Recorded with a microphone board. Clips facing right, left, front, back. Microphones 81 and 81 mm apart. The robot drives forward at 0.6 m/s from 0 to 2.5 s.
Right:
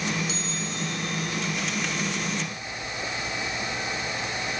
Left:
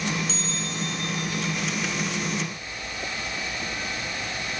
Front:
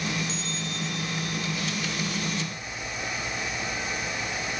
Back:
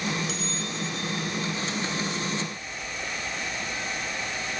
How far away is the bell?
About 3 m.